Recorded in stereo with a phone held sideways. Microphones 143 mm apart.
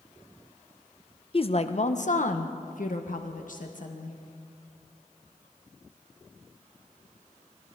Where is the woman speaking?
40° left (ahead or behind), 0.7 m; by 4.2 s 65° left (ahead or behind), 1.7 m.